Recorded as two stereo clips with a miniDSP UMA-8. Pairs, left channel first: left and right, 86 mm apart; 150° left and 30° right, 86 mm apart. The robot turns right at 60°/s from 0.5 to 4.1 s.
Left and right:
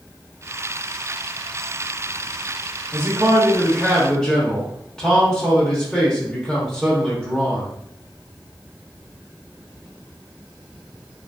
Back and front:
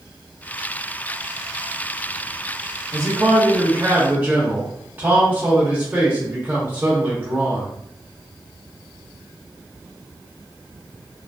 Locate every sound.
2.9 s a man speaking: 50° right, 0.8 m; by 7.7 s 20° left, 0.8 m